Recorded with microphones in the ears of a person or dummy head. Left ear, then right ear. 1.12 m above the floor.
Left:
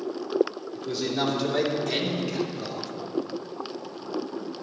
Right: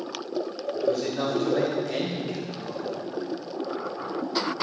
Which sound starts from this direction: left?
A man speaking, at 0.7 s.